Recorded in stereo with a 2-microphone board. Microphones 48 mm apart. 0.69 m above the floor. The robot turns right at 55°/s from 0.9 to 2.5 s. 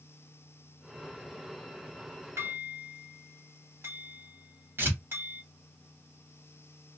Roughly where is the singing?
No singing in this recording.